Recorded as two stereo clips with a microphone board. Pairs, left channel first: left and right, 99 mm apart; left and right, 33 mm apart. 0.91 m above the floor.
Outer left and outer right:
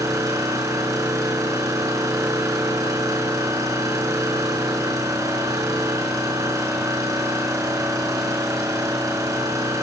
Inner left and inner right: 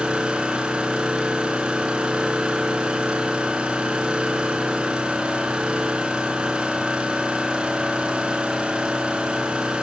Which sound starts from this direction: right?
An engine running, at 0.0 s.